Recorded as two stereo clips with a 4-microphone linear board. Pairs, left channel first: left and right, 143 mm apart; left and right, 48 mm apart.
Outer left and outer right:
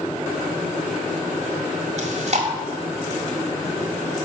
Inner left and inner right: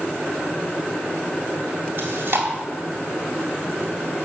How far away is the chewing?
About 1.7 m.